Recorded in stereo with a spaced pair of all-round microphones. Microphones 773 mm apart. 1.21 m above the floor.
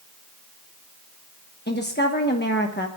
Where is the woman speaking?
15° left (ahead or behind), 1.2 m.